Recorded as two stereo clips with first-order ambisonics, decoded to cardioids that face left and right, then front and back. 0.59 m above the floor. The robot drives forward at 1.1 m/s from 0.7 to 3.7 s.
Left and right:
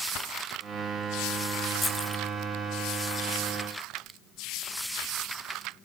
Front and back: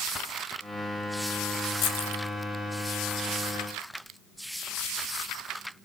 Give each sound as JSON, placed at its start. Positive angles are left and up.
{"t": 1.8, "sound": "keys jangling", "azimuth_deg": 10, "distance_m": 1.8}